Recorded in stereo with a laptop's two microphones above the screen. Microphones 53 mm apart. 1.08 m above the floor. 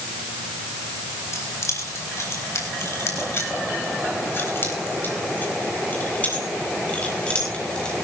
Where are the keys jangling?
65° left (ahead or behind), 4.5 m; by 7.9 s 15° left (ahead or behind), 3.5 m.